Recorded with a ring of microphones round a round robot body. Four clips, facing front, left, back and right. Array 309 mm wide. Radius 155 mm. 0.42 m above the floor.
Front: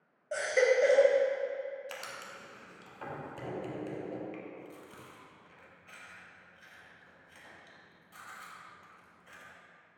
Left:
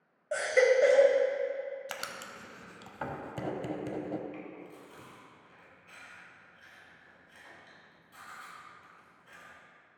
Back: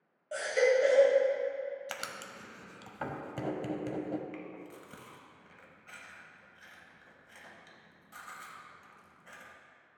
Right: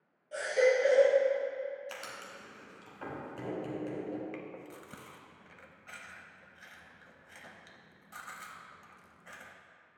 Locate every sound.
0.3 s a baby crying: 75° left, 1.2 m
1.9 s writing: 135° left, 0.9 m
4.3 s chewing: 110° right, 1.0 m